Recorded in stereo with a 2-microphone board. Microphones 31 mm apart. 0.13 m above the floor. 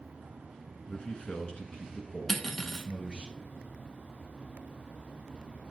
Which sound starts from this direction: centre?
Cutlery clinking, at 2.3 s.